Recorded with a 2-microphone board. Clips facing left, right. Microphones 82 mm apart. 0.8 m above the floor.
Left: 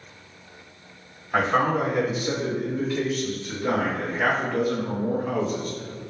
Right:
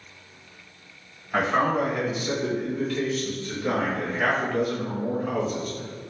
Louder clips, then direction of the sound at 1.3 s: Left 1 dB; 10° left (ahead or behind).